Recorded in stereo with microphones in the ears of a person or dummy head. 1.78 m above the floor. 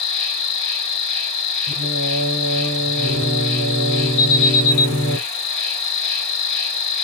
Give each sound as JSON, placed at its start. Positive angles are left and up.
{"t": 0.0, "sound": "an insect", "side_deg": 25, "distance_m": 2.0}
{"t": 1.7, "sound": "singing", "side_deg": -90, "distance_m": 0.9}
{"t": 4.2, "sound": "an alarm", "side_deg": 30, "distance_m": 1.4}